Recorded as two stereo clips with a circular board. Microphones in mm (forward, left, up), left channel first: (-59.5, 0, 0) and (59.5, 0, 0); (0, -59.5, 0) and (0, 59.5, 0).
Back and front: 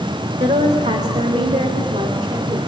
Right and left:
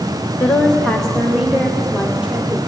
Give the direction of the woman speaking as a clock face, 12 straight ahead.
12 o'clock.